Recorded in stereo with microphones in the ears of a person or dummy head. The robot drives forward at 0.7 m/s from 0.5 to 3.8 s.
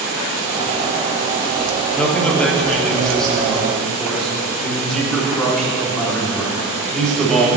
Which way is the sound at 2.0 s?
5° left (ahead or behind).